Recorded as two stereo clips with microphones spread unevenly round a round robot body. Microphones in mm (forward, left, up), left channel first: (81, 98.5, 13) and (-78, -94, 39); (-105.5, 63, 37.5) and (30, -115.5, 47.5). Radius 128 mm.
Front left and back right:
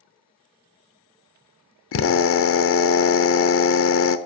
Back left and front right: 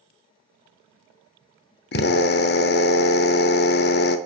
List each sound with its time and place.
1.9 s a drill: 85° left, 0.8 m